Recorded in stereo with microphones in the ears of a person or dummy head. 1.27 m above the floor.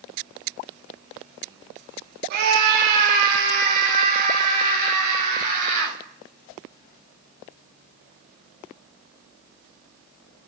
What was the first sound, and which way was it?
A scream, 55° right (ahead or behind).